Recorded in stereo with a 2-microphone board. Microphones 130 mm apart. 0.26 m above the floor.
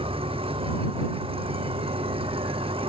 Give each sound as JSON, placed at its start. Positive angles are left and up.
{"t": 0.0, "sound": "an engine running", "side_deg": -45}